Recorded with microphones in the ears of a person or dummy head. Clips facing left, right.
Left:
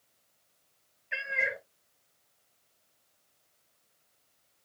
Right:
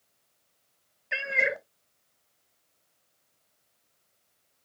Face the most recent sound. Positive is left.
turn(degrees=-60)  # may be behind; listen again after turning